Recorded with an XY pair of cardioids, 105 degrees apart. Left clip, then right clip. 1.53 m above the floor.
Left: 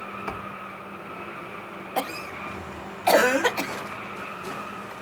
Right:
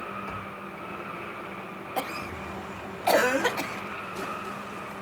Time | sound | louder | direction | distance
0.3 | a thud | left 3 dB | 60° left | 3.5 m
2.0 | a cough | left 3 dB | 25° left | 0.6 m